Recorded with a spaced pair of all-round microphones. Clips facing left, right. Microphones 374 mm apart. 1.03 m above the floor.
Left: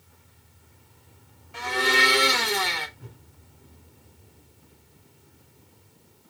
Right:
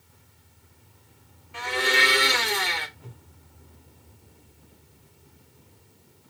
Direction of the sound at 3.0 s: 25° left (ahead or behind).